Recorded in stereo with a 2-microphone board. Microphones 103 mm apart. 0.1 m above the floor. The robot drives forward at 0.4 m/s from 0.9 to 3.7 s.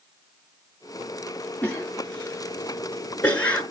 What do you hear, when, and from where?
1.6 s a cough: 15° left (ahead or behind), 1.2 m